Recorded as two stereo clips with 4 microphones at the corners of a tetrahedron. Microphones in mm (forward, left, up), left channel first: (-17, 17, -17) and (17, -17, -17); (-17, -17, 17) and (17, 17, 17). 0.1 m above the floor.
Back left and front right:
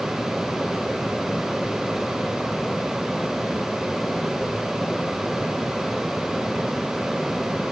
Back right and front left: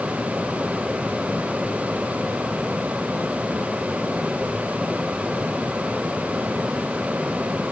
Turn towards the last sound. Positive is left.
No sound to turn to.